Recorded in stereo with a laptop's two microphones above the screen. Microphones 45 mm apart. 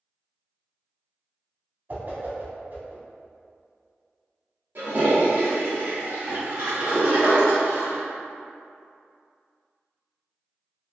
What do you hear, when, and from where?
1.9 s a whoosh: 45° right (ahead or behind), 1.1 m
4.8 s a toilet flushing: 60° right (ahead or behind), 1.0 m